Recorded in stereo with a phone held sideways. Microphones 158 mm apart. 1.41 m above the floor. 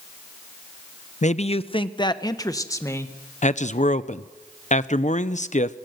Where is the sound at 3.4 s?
50° left (ahead or behind), 0.8 m.